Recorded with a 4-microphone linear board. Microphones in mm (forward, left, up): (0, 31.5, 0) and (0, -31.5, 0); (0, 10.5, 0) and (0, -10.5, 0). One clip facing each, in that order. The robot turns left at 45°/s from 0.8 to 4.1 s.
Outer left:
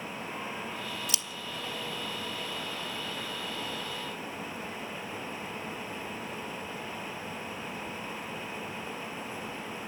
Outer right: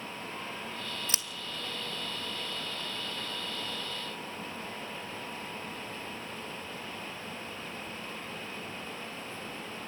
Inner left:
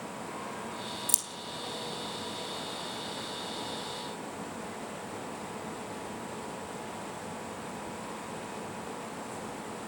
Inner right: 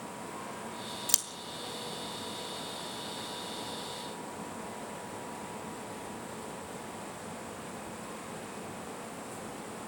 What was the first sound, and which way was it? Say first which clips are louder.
Scissors: outer left 1 dB, inner right 4 dB; 35° right (ahead or behind).